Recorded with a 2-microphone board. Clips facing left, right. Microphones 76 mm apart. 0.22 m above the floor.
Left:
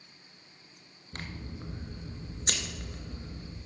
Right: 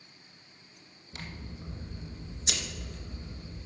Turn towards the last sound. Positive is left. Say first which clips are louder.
# left 2 dB
turn(degrees=45)  # may be behind; listen again after turning